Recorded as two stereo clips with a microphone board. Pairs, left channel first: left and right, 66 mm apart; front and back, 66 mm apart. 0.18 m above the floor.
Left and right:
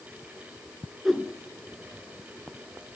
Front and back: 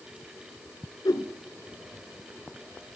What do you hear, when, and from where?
1.1 s a whoosh: straight ahead, 0.9 m